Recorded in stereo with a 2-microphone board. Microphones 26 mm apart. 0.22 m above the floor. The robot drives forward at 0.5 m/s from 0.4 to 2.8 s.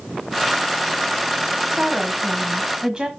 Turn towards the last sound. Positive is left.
turn(degrees=-30)  # may be behind; listen again after turning